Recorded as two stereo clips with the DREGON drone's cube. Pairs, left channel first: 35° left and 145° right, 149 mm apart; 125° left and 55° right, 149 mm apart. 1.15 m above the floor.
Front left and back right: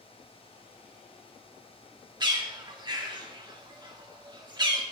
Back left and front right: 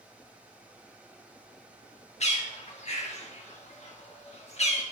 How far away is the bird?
About 1.2 m.